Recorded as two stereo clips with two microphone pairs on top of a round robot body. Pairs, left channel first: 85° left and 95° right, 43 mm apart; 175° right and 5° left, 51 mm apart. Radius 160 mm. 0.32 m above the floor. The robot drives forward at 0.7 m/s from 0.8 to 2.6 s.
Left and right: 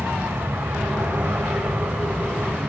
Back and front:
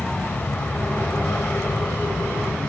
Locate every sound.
0.0 s an aircraft: 115° right; by 2.7 s 120° right